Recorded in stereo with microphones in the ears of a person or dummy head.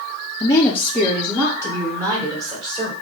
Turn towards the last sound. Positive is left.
turn(degrees=-25)  # may be behind; listen again after turning